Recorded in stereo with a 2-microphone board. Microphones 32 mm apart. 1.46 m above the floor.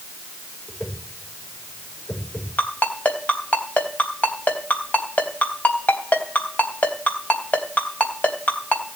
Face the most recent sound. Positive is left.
turn(degrees=60)  # may be behind; listen again after turning